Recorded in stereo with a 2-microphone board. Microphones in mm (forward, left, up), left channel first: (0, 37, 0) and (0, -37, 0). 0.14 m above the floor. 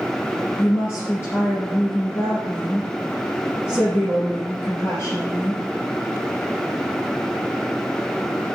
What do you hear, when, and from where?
0.6 s a woman speaking: 35° left (ahead or behind), 3 m